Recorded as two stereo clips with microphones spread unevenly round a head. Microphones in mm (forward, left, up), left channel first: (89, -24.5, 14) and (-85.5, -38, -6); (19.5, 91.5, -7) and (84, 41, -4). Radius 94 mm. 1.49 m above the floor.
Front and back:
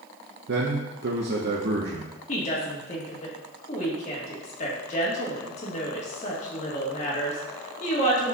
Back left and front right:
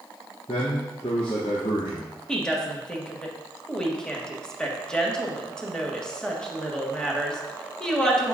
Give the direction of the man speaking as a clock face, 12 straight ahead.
6 o'clock.